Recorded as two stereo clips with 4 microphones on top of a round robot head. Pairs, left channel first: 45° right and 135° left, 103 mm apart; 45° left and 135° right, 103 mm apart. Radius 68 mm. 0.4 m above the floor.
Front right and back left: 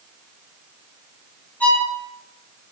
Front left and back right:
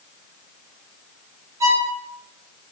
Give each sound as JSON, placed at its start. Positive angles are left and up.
{"t": 1.6, "sound": "a violin", "azimuth_deg": -105, "distance_m": 1.3}